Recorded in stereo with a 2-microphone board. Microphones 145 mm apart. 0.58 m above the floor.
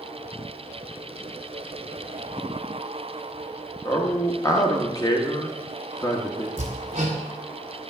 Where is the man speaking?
25° left (ahead or behind), 0.9 m.